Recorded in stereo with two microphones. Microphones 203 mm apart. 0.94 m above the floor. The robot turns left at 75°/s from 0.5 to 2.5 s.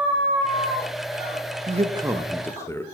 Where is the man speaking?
135° right, 0.6 m; by 2.8 s 165° left, 0.6 m.